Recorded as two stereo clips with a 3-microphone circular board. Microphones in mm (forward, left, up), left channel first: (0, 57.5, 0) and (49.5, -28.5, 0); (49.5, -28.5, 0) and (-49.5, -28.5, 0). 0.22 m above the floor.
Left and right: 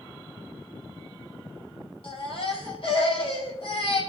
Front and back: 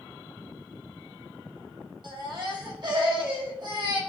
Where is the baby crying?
140° left, 5.5 m.